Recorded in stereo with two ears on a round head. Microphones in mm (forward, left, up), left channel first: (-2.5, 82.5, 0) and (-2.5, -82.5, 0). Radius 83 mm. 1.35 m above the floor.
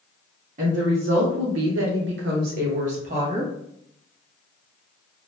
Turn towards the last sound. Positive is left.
turn(degrees=-35)  # may be behind; listen again after turning